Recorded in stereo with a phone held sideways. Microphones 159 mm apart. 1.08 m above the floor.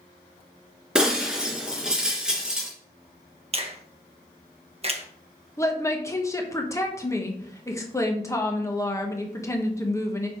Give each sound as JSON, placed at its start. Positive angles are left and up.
{"t": 0.9, "sound": "breaking glass", "side_deg": -5, "distance_m": 2.5}
{"t": 3.5, "sound": "a finger snap", "side_deg": -40, "distance_m": 0.8}
{"t": 5.6, "sound": "a woman speaking", "side_deg": 20, "distance_m": 1.2}